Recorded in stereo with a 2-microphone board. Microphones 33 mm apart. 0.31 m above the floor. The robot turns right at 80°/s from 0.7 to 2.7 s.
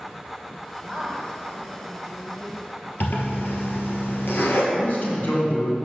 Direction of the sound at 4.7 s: 65° left (ahead or behind).